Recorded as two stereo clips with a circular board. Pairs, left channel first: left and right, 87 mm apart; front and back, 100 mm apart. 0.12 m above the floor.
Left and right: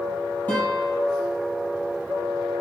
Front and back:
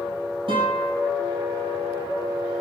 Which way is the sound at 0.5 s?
160° left.